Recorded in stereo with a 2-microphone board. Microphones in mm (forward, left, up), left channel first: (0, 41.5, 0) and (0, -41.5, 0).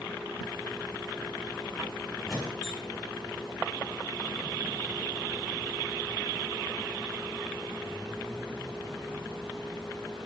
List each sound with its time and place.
2.2 s a squeak: 5° right (ahead or behind), 4 m